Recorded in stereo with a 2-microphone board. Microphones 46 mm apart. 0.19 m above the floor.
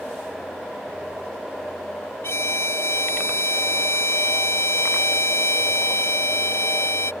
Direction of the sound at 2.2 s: 65° left (ahead or behind).